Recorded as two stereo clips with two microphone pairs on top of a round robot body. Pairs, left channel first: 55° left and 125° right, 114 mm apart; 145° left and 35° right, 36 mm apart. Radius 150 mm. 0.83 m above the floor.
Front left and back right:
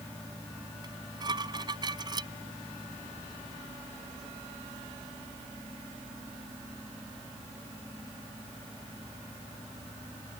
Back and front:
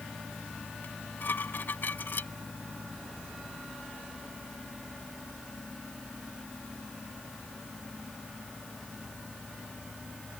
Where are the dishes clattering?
Straight behind.